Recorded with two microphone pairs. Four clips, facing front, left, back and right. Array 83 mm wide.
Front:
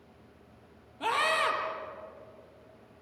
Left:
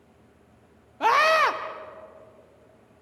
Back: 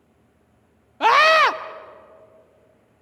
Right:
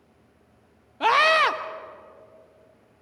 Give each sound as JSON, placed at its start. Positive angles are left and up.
{"t": 1.0, "sound": "a scream", "azimuth_deg": 170, "distance_m": 0.9}